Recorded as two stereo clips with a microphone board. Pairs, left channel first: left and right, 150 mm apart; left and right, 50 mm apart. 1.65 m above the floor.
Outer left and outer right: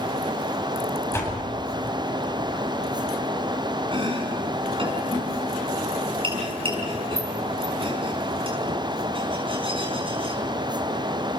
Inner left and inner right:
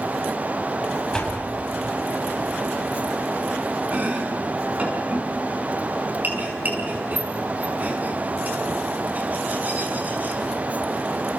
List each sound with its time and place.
1.1 s a door slam: 20° left (ahead or behind), 7.5 m
3.9 s chopping: 40° right (ahead or behind), 6 m